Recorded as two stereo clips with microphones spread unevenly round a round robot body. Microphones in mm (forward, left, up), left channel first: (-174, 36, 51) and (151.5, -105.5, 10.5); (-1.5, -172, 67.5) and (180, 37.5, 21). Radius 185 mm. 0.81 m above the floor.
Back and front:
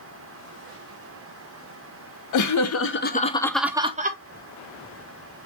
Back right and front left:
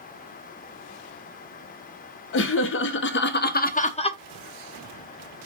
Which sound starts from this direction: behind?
Laughter, at 2.3 s.